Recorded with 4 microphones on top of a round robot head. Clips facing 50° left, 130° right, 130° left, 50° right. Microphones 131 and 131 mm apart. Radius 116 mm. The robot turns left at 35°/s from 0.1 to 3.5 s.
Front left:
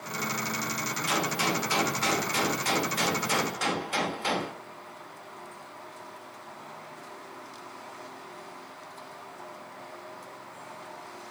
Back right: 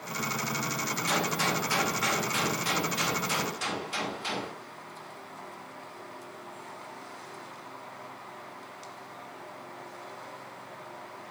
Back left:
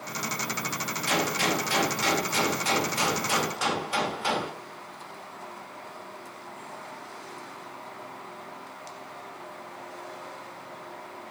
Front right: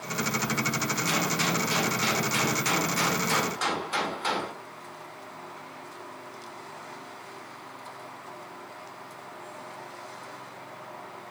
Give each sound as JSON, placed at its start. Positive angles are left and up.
{"t": 1.1, "sound": "a gunshot", "azimuth_deg": 135, "distance_m": 2.0}